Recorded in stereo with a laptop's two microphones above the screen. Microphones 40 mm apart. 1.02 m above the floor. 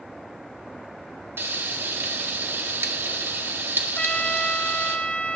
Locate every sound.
1.4 s frying: 70° right (ahead or behind), 1.6 m
4.0 s a trumpet: 30° left (ahead or behind), 0.9 m